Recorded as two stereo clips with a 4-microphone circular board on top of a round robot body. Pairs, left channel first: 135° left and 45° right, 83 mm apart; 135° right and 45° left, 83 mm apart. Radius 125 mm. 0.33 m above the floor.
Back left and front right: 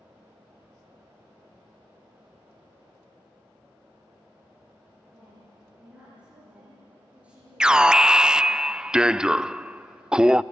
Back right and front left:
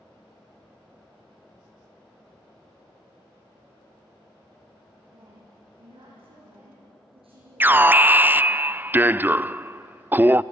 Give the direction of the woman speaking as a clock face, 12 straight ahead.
11 o'clock.